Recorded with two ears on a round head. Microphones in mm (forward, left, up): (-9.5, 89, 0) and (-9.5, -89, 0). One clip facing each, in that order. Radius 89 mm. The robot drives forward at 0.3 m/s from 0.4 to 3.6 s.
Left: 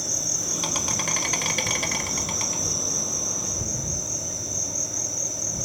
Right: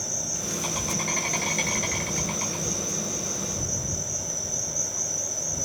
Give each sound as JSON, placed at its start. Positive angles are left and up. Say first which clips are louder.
{"t": 0.0, "sound": "an insect", "louder": "even", "side_deg": 70, "distance_m": 0.9}